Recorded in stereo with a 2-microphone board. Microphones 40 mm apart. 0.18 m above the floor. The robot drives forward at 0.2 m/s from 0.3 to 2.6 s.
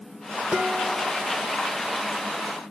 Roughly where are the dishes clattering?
Right.